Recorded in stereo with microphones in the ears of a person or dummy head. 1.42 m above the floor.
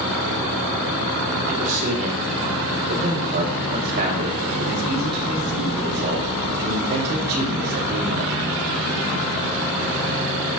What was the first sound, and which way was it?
A man speaking, 45° right (ahead or behind).